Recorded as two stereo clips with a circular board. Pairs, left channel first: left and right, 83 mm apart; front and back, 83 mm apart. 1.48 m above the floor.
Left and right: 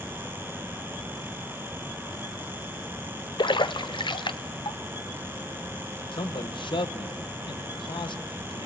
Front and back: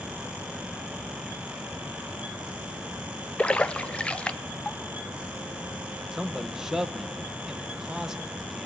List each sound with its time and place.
3.4 s a splash: 75° left, 0.7 m
6.1 s a man speaking: 95° left, 1.2 m